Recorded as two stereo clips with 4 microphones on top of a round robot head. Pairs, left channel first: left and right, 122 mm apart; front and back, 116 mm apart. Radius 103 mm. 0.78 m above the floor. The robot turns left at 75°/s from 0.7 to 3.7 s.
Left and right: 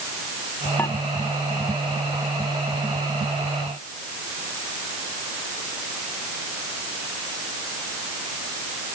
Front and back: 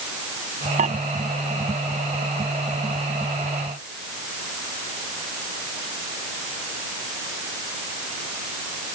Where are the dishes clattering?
170° left; by 1.0 s 155° left.